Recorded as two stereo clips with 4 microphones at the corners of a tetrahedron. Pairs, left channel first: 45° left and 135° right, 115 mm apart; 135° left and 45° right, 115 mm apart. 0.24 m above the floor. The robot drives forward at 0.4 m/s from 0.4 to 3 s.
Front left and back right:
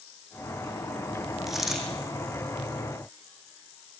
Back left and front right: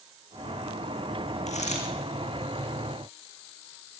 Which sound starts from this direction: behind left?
A dropped coin, at 1.5 s.